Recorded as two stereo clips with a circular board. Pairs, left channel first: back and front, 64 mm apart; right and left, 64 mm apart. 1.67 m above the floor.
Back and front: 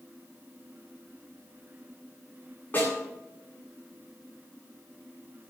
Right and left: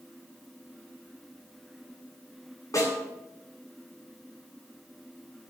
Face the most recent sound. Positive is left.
turn(degrees=-120)